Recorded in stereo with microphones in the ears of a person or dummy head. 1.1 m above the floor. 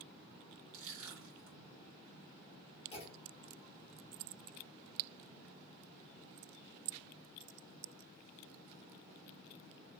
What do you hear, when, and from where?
0.7 s crushing: 35° right (ahead or behind), 2 m
2.9 s a clunk: 40° left (ahead or behind), 1.2 m